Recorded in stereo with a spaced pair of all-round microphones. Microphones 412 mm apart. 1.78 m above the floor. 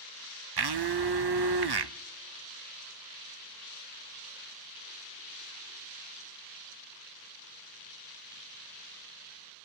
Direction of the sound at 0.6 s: 70° right (ahead or behind).